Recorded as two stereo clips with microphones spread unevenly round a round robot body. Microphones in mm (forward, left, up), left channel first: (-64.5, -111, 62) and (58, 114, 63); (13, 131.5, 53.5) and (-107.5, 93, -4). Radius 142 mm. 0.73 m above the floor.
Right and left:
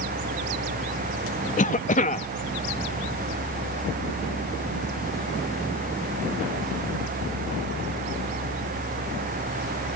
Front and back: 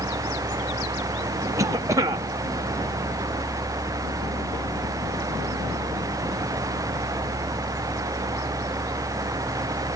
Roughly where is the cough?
Behind.